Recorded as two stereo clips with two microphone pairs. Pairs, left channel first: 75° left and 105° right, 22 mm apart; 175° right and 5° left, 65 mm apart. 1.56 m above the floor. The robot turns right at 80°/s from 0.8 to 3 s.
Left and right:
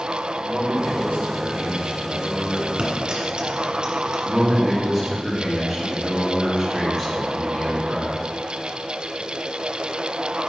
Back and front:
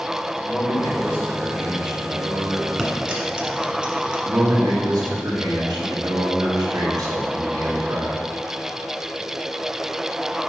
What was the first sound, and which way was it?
A man speaking, 140° right.